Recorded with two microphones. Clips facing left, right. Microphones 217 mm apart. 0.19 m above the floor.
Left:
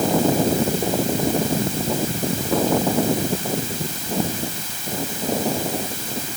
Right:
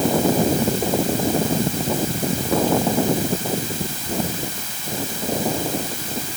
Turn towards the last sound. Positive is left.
No sound to turn to.